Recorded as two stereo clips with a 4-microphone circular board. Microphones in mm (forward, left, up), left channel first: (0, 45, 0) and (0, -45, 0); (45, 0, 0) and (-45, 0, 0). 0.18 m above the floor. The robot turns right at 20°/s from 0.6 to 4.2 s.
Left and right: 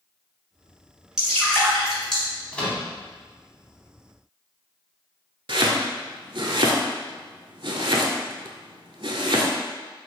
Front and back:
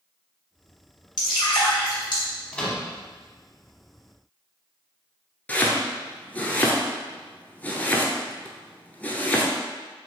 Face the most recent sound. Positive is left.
turn(degrees=-75)